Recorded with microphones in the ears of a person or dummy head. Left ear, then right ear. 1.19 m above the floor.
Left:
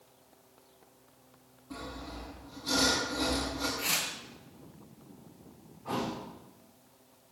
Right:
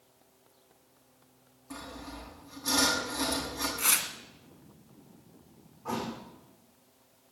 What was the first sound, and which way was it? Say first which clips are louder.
Sawing: left 1 dB; 60° right (ahead or behind).